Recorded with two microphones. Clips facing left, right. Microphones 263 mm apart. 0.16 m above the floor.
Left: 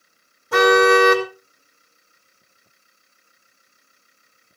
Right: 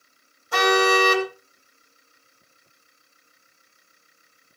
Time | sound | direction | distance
0.5 | a car horn | 60° left (ahead or behind) | 3.5 m